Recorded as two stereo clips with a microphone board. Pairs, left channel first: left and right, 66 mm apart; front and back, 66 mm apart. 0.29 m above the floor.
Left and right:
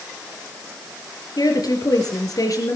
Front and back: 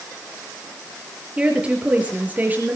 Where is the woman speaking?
105° left, 5.5 m; by 2.8 s 120° left, 4.5 m.